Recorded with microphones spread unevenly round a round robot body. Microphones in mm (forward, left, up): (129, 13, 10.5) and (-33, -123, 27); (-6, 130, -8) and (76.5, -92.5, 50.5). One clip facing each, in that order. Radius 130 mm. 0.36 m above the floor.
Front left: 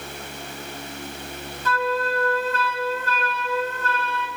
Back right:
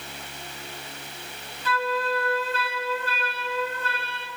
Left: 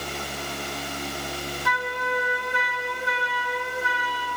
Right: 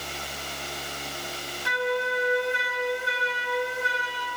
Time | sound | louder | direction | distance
1.6 | a flute | front left 2 dB, right 6 dB | 5° right | 3 m